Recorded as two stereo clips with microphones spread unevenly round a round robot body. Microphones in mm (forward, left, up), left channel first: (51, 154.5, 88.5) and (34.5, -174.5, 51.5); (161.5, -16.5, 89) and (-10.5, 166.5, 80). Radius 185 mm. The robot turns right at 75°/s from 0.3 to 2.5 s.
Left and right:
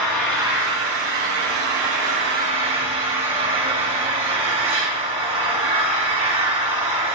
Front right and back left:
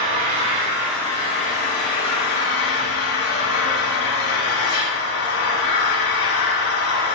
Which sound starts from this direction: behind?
An engine running, at 0.0 s.